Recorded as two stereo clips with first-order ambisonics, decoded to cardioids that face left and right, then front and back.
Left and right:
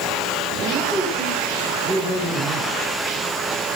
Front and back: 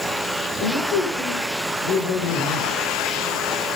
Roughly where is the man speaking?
Ahead.